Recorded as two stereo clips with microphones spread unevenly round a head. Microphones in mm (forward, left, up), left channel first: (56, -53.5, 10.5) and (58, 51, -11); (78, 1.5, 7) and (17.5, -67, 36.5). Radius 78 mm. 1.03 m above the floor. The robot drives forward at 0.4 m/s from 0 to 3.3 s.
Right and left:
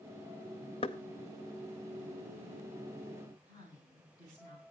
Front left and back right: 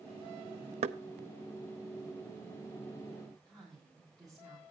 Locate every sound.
0.8 s knocking: 145° right, 0.6 m
3.5 s a woman speaking: 125° left, 9.5 m